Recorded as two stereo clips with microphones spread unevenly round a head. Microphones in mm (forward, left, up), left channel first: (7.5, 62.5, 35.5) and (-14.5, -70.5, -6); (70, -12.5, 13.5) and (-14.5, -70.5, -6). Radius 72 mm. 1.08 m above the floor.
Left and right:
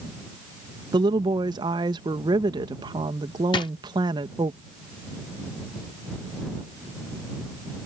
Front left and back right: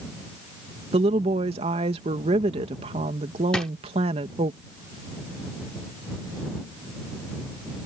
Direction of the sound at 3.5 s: 110° left.